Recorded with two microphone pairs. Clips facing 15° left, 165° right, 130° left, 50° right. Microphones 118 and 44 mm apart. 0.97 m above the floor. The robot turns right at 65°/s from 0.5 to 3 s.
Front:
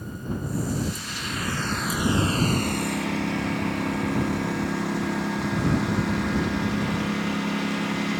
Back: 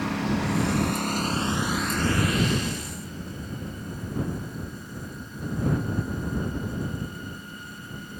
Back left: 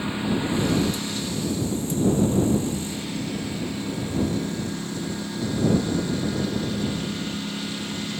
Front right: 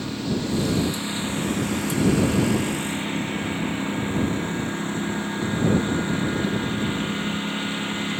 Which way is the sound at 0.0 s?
160° right.